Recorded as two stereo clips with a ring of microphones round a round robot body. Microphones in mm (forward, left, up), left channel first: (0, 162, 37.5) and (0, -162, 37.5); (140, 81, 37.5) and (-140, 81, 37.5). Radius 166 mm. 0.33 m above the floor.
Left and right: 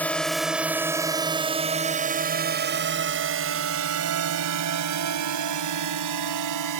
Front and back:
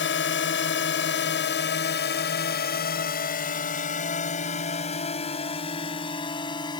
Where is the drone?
5° left; by 6.8 s 75° right.